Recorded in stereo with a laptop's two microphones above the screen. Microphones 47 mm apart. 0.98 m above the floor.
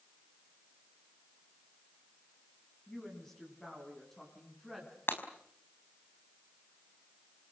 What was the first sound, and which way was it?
A woman speaking, 15° left (ahead or behind).